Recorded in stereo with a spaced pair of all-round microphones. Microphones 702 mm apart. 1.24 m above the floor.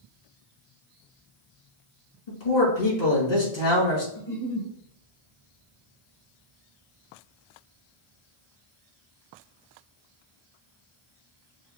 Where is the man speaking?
75° left (ahead or behind), 2.5 m.